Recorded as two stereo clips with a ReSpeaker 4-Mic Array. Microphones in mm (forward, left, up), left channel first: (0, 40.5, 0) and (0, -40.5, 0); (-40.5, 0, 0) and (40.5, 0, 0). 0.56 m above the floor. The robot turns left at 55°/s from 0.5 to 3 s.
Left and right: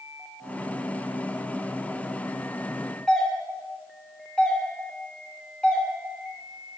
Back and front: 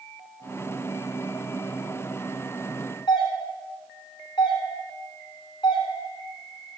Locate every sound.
3.1 s a doorbell: 175° left, 3 m